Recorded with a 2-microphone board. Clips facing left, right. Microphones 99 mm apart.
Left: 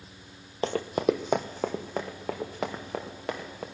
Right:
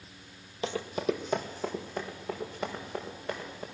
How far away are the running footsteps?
About 0.7 m.